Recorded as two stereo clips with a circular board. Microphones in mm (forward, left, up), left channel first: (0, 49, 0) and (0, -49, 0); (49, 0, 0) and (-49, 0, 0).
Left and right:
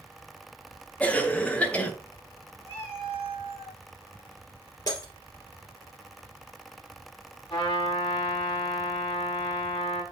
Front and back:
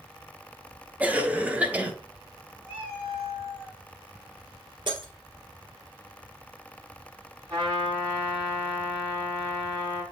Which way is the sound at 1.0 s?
135° left.